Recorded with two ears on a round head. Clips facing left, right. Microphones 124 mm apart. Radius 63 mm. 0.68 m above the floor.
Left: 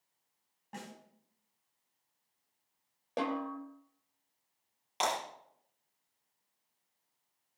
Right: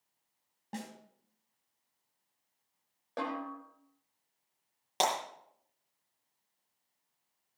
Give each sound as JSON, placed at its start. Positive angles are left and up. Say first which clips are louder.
{"t": 0.7, "sound": "a snare drum", "louder": "right 4 dB", "side_deg": -40, "distance_m": 3.0}
{"t": 3.2, "sound": "a snare drum", "louder": "left 3 dB", "side_deg": 25, "distance_m": 3.0}
{"t": 5.0, "sound": "breaking glass", "louder": "right 2 dB", "side_deg": -55, "distance_m": 8.5}